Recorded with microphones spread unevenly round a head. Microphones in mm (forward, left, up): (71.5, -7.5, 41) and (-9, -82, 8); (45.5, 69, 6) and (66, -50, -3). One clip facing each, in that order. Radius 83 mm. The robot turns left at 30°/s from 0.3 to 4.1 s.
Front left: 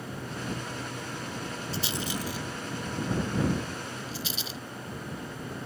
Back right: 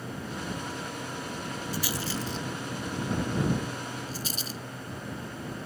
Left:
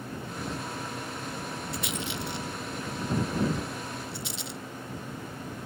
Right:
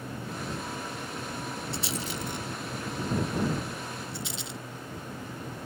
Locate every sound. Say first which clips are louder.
1.7 s a rattle: even, even; 20° right; by 4.6 s 90° right